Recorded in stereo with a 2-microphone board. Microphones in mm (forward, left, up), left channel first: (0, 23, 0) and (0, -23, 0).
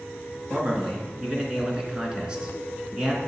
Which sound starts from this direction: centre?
A man speaking, at 0.5 s.